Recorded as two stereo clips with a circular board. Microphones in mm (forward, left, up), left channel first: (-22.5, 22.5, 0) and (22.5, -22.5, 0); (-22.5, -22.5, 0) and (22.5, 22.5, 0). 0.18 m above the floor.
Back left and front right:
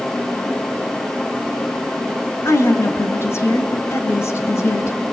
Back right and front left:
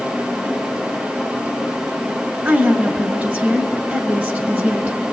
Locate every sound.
2.5 s a woman speaking: 100° left, 2.5 m